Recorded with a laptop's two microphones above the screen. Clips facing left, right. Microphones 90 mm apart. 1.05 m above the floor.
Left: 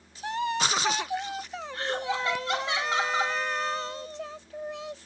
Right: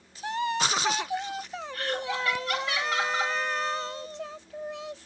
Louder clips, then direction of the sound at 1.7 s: Left 1 dB; 25° left (ahead or behind).